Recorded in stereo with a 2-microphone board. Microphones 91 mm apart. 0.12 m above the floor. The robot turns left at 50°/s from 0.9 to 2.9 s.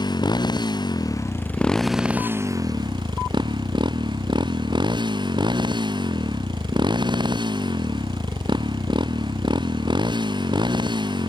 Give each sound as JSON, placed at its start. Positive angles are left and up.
{"t": 0.0, "sound": "a motorcycle", "azimuth_deg": 50}